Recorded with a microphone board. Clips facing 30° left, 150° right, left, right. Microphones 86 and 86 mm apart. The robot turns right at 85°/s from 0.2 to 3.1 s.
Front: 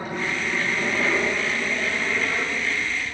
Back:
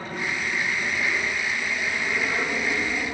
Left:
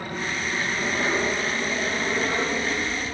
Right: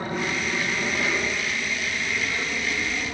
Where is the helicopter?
30° right; by 3.1 s 175° left.